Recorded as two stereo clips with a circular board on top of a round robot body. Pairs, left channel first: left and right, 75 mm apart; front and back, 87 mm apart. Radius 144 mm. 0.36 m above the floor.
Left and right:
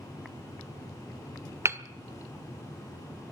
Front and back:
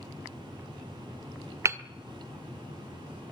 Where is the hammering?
130° right, 1.7 m.